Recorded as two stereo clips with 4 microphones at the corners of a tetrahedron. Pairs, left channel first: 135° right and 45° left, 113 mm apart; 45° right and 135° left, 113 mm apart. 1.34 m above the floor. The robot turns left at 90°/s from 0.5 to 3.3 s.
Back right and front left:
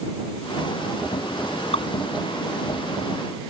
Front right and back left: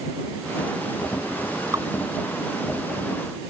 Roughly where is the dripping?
Behind.